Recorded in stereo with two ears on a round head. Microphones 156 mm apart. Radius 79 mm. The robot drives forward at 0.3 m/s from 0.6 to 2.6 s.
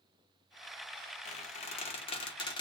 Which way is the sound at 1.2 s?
40° left (ahead or behind).